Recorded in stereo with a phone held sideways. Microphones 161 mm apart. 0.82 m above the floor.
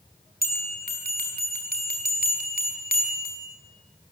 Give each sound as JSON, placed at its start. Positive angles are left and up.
{"t": 0.4, "sound": "a bell", "side_deg": -75, "distance_m": 5.0}